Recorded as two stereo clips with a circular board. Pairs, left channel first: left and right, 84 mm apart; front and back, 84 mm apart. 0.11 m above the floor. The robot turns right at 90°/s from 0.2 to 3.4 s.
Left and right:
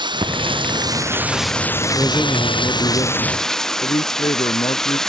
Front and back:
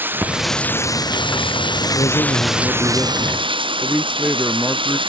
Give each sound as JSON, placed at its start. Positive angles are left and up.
{"t": 0.0, "sound": "running water", "azimuth_deg": -115}
{"t": 2.0, "sound": "a man speaking", "azimuth_deg": -25}
{"t": 3.8, "sound": "a man speaking", "azimuth_deg": 95}